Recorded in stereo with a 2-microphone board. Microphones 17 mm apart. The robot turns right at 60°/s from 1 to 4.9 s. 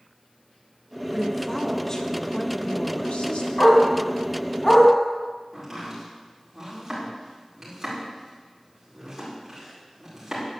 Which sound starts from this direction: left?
A dog barking, at 3.6 s.